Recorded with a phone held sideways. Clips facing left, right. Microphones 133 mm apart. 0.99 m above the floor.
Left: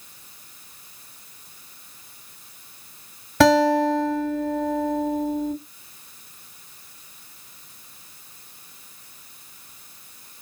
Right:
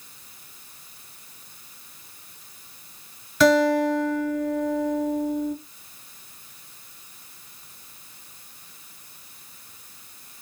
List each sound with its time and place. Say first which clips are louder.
3.4 s a guitar: left 2 dB; 65° left (ahead or behind), 1.6 m